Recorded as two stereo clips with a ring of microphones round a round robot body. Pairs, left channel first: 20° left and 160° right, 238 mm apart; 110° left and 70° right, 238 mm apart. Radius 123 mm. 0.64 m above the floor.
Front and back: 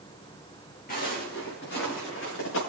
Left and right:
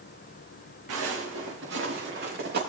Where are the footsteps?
35° right, 4 m; by 2.6 s 15° right, 4.5 m.